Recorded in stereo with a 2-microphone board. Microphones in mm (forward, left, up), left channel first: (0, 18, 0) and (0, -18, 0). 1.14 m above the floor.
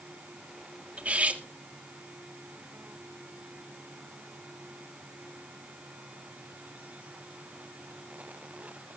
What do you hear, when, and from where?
1.0 s cutlery clinking: 40° right (ahead or behind), 1.5 m